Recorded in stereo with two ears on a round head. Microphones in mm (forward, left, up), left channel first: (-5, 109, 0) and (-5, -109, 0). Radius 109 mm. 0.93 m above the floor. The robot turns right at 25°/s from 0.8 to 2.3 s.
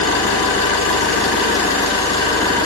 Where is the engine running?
125° left, 5.5 m; by 2.7 s 165° left, 5.5 m.